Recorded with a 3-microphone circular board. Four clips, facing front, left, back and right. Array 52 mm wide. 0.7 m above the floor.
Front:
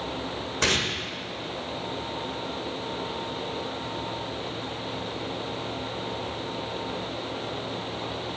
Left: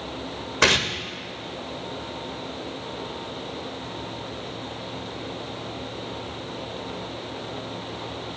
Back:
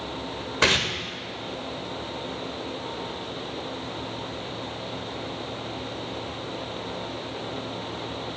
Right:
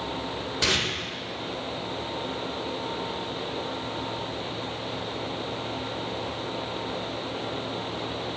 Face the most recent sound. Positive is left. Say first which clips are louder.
# left 6 dB, back 4 dB
turn(degrees=115)